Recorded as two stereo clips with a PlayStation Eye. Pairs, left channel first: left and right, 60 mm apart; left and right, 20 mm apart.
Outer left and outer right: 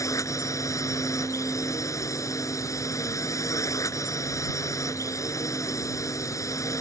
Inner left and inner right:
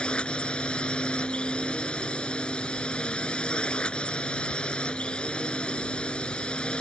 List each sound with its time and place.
0.0 s a drone: 65° left (ahead or behind)